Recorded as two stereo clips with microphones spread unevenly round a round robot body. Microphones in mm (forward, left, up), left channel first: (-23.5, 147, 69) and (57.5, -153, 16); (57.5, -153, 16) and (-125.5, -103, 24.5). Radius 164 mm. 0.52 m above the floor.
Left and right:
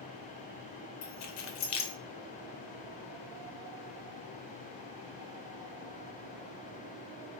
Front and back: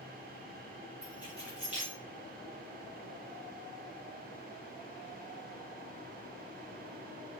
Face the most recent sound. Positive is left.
turn(degrees=80)